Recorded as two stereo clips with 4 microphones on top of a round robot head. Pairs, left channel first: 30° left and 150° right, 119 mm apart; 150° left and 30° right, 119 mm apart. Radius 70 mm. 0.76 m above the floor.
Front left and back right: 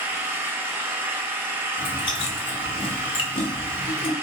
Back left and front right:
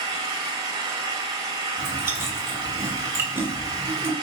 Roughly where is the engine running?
Right.